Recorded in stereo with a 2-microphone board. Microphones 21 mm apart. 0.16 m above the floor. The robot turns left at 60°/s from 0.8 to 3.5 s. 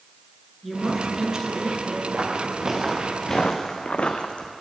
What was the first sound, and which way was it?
A woman speaking, straight ahead.